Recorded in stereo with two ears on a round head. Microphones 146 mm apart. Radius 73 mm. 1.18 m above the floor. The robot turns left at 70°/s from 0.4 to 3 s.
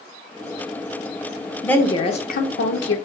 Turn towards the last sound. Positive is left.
turn(degrees=80)